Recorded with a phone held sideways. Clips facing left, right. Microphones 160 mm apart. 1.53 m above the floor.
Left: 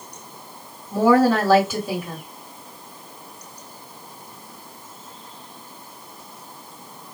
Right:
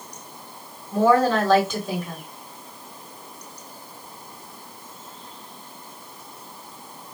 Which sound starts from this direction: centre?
A woman speaking, at 0.9 s.